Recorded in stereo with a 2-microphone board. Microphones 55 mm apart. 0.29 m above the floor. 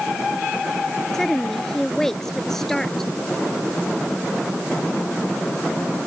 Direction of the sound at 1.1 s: 5° left (ahead or behind).